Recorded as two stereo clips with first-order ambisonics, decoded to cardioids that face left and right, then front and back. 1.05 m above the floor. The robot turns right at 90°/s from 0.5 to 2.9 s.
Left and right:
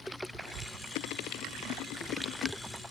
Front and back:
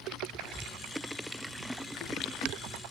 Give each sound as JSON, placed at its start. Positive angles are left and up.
{"t": 0.4, "sound": "a clap", "azimuth_deg": -175, "distance_m": 4.0}